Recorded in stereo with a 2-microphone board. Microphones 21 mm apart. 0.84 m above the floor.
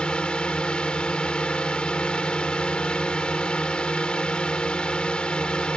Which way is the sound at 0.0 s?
60° left (ahead or behind).